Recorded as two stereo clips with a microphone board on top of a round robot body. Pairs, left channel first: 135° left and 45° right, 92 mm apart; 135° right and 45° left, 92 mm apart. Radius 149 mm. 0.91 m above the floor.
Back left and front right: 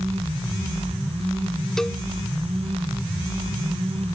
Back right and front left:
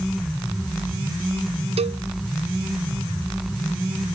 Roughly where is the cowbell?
Ahead left.